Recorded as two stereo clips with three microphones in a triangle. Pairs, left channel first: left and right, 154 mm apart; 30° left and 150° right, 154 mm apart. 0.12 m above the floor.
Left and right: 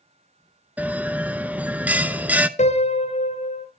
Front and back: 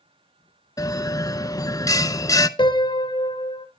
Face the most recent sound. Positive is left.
turn(degrees=75)